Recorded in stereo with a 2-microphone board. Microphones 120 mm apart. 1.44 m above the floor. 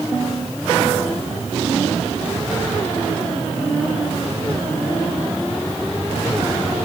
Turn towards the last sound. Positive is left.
No sound to turn to.